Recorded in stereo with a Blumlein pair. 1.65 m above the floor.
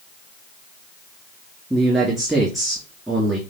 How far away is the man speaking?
About 3 m.